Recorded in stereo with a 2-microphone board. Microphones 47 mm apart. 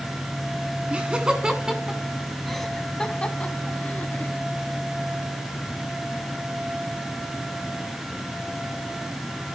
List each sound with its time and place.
0.9 s laughter: 25° right (ahead or behind), 1.8 m; by 4.3 s 45° left (ahead or behind), 1.6 m